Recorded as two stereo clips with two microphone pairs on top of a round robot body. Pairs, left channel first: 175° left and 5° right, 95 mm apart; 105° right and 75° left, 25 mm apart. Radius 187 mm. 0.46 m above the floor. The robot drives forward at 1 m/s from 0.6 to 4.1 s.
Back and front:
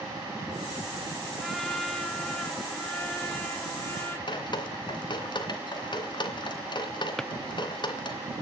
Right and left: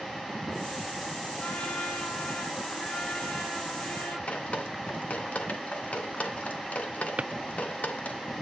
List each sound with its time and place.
1.4 s a trumpet: 95° right, 7.5 m; by 4.2 s 115° right, 8.5 m
4.3 s dripping: 140° right, 2.5 m
7.2 s a drawer: 95° left, 0.7 m